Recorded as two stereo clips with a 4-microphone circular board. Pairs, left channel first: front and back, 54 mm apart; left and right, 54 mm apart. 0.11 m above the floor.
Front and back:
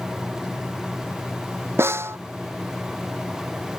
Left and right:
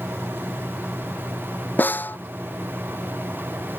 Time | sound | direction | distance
1.8 | a snare drum | 145° left | ?